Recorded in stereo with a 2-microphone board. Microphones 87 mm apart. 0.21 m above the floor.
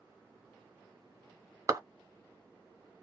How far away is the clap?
About 1.0 m.